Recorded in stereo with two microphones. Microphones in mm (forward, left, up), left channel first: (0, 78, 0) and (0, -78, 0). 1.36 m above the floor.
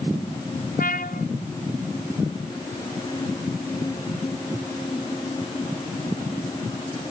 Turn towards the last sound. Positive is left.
turn(degrees=70)  # may be behind; listen again after turning